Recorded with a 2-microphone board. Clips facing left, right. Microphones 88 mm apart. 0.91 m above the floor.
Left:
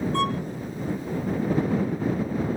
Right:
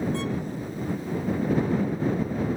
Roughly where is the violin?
Left.